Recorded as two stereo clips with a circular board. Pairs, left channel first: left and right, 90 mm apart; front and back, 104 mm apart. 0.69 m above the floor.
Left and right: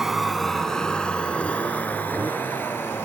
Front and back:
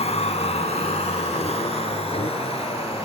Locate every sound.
0.0 s a vehicle: 5° right; by 3.0 s 25° left